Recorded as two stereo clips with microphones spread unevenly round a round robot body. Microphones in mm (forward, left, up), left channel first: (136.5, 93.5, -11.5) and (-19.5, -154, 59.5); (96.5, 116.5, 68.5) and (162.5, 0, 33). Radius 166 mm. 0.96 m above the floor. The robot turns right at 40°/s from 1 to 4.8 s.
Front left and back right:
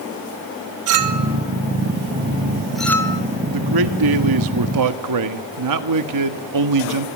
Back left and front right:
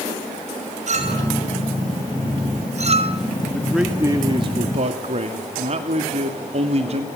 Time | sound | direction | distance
0.9 | a clink | 100° right | 1.8 m
3.5 | a man speaking | 155° right | 1.8 m